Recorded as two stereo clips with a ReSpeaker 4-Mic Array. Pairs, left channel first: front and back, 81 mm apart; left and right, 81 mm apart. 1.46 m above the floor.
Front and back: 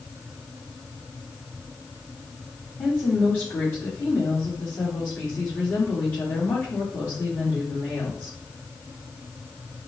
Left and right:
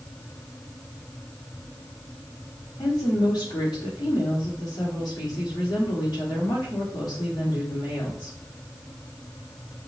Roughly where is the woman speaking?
Ahead left.